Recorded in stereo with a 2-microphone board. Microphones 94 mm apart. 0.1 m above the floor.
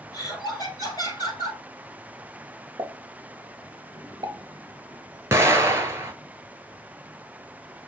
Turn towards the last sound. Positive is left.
turn(degrees=-30)  # may be behind; listen again after turning